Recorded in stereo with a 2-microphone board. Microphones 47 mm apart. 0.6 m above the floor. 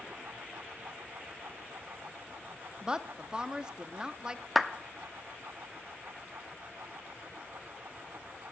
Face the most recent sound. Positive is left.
turn(degrees=-5)  # may be behind; listen again after turning